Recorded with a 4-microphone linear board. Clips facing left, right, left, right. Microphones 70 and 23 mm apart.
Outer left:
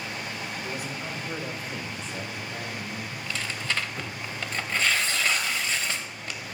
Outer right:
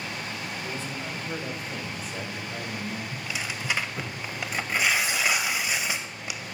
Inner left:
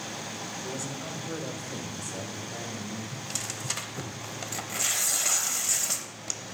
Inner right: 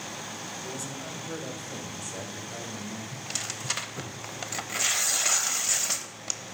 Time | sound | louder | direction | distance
0.6 | a man speaking | even, inner left 1 dB | 15° left (ahead or behind) | 1.7 m
3.1 | tearing paper | even, inner right 1 dB | 15° right (ahead or behind) | 0.8 m